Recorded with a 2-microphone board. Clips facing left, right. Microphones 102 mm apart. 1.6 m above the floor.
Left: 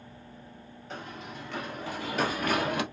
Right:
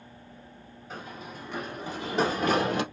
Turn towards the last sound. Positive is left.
turn(degrees=-30)  # may be behind; listen again after turning